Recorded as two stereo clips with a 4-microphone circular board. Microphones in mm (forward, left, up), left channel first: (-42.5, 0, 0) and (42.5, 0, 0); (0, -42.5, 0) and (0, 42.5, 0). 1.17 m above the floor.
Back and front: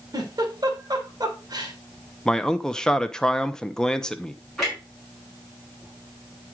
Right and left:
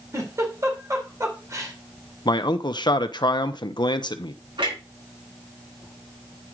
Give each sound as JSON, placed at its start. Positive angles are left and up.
{"t": 0.1, "sound": "a giggle", "azimuth_deg": 40, "distance_m": 2.5}
{"t": 2.2, "sound": "a man speaking", "azimuth_deg": -100, "distance_m": 0.8}
{"t": 4.6, "sound": "a clunk", "azimuth_deg": 95, "distance_m": 6.0}